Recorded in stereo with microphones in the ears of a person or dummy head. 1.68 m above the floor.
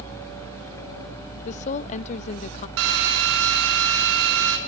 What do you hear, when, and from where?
1.4 s a woman speaking: 40° left (ahead or behind), 0.6 m
2.8 s a drill: 70° right (ahead or behind), 5 m